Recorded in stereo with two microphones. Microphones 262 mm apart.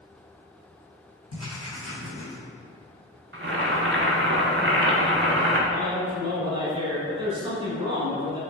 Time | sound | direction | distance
1.3 | writing | 70° left (ahead or behind) | 1.9 m
3.3 | boiling | 50° right (ahead or behind) | 0.7 m
5.7 | a man speaking | 20° right (ahead or behind) | 1.3 m